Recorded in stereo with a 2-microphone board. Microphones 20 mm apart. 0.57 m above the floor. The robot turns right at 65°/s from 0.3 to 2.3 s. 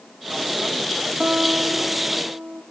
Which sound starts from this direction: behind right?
A guitar, at 1.2 s.